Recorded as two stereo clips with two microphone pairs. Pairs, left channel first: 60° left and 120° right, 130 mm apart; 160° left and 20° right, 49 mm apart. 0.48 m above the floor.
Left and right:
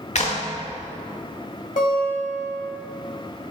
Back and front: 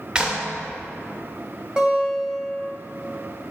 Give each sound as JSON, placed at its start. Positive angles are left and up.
{"t": 0.1, "sound": "a clap", "azimuth_deg": 50, "distance_m": 0.9}
{"t": 1.8, "sound": "a guitar", "azimuth_deg": 55, "distance_m": 1.4}